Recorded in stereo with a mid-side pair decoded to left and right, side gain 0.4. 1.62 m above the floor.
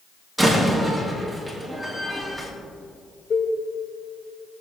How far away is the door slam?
About 3 m.